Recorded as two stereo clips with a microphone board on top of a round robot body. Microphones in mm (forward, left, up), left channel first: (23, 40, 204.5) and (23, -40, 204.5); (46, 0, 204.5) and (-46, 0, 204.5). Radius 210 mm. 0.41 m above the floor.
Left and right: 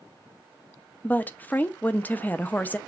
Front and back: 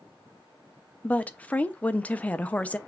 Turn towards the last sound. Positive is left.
turn(degrees=55)